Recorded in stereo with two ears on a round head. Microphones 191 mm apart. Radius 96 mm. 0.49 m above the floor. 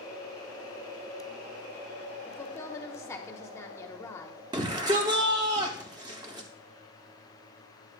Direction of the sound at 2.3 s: 15° left (ahead or behind).